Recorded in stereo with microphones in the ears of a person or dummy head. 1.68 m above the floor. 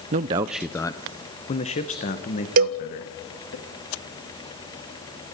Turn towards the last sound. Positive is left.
turn(degrees=-55)  # may be behind; listen again after turning